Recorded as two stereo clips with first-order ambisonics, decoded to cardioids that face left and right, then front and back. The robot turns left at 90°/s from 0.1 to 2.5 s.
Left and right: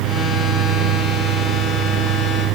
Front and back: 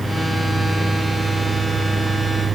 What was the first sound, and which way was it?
Only background noise.